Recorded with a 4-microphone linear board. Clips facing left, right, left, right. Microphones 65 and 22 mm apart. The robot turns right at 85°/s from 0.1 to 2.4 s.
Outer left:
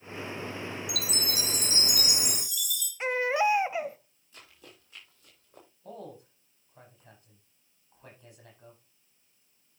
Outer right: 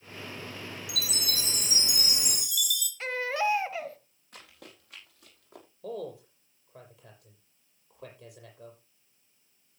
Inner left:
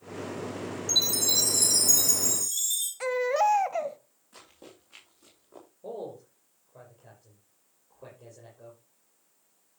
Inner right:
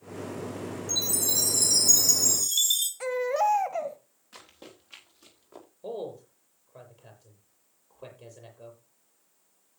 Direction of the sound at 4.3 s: 60° right (ahead or behind).